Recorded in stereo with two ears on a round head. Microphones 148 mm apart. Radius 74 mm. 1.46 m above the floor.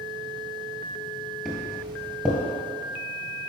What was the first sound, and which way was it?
Footsteps, 5° left (ahead or behind).